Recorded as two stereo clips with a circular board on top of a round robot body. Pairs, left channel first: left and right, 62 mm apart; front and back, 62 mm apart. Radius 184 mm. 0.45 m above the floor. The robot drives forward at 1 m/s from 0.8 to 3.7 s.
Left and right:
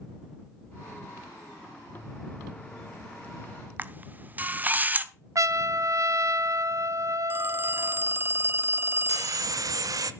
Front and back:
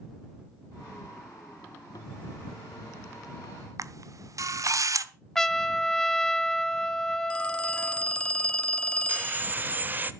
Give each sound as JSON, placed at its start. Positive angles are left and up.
{"t": 3.8, "sound": "a camera shutter", "azimuth_deg": -150, "distance_m": 1.0}
{"t": 5.3, "sound": "a trumpet", "azimuth_deg": -80, "distance_m": 1.1}
{"t": 7.3, "sound": "a phone ringing", "azimuth_deg": -60, "distance_m": 0.7}
{"t": 9.1, "sound": "sawing", "azimuth_deg": -120, "distance_m": 0.7}